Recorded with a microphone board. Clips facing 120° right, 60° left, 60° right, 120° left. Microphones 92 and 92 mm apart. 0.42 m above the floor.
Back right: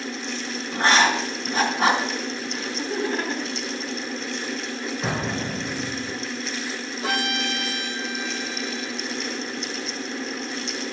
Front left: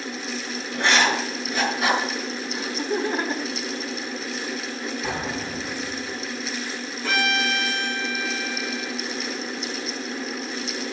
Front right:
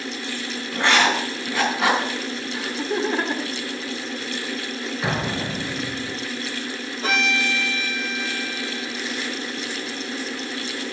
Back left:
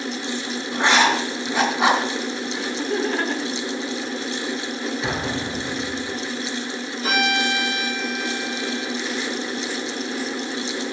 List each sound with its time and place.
0.7 s writing: 165° right, 3.5 m
2.5 s laughter: 20° left, 1.4 m
5.0 s an explosion: 120° right, 4.5 m
7.0 s a violin: 115° right, 5 m